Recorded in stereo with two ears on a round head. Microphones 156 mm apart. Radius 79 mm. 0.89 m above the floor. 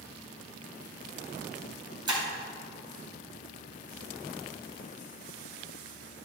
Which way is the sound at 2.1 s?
25° right (ahead or behind).